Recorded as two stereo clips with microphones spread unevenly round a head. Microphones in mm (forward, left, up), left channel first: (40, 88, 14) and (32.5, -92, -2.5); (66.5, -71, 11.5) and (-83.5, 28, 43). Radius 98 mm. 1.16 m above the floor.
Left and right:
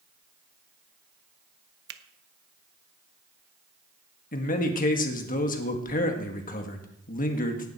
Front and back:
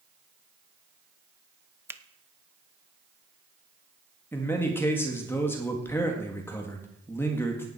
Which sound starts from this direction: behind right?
A finger snap, at 1.9 s.